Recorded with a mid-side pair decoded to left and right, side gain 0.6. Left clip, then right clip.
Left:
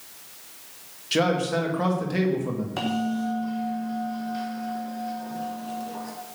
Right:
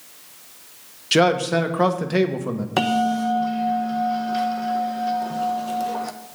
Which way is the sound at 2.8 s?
50° right.